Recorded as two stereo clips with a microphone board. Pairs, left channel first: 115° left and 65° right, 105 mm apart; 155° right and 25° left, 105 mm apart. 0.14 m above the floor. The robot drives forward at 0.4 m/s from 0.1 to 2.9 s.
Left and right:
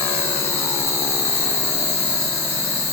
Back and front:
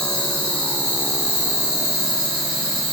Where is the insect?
135° left, 1.4 m; by 2.9 s 165° left, 2.0 m.